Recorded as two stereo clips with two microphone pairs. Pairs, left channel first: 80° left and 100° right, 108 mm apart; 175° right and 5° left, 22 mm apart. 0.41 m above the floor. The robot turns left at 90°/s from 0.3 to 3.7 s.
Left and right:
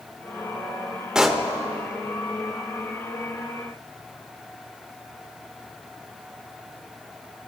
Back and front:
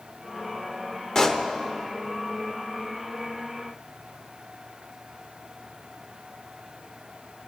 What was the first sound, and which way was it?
A pop, straight behind.